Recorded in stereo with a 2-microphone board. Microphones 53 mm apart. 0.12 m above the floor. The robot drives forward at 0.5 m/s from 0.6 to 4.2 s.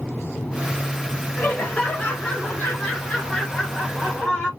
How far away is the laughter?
About 1.3 m.